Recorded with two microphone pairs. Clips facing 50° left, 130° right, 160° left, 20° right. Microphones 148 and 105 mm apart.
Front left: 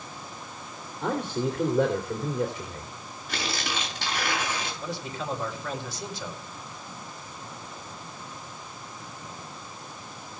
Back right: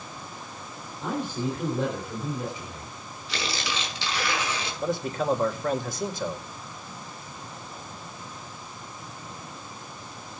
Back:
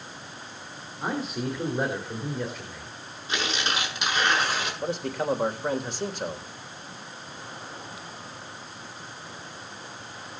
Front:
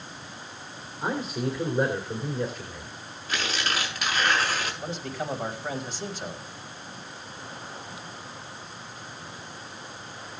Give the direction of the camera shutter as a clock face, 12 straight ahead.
I don't hear a camera shutter.